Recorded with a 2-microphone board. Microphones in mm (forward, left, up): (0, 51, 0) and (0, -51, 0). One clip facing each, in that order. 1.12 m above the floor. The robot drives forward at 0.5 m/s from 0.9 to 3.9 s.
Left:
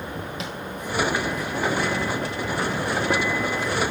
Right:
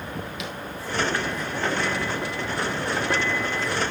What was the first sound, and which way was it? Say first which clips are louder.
Tapping: left 1 dB; 35° left (ahead or behind).